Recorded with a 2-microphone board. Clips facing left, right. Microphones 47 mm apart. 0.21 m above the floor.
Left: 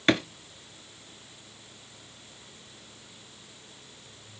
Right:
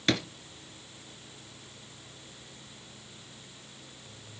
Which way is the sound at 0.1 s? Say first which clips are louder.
Left 5 dB; 30° left (ahead or behind).